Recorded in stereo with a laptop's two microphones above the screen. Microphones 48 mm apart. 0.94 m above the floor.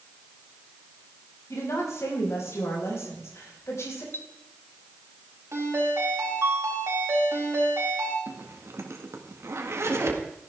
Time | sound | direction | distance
1.5 | a woman speaking | 75° left (ahead or behind) | 6 m
4.1 | a clink | 50° left (ahead or behind) | 0.9 m
5.5 | a ringtone | 65° right (ahead or behind) | 5 m
8.3 | a zipper | 65° right (ahead or behind) | 1.8 m